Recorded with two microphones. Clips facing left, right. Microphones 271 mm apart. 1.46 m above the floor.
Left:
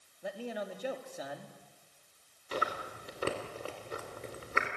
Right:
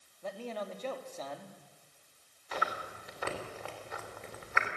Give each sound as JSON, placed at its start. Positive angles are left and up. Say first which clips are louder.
{"t": 0.2, "sound": "a man speaking", "louder": "left 1 dB", "side_deg": 10, "distance_m": 2.5}
{"t": 2.5, "sound": "chewing", "louder": "left 2 dB", "side_deg": 40, "distance_m": 3.0}